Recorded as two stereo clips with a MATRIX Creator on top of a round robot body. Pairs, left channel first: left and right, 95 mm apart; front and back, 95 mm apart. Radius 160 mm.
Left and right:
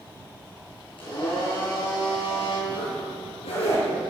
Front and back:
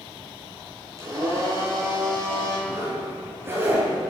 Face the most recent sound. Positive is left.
turn(degrees=115)